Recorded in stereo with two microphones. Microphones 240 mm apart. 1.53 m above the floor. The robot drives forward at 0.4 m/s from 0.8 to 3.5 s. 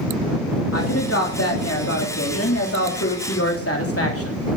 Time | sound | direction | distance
0.7 | a woman speaking | 85° left | 3 m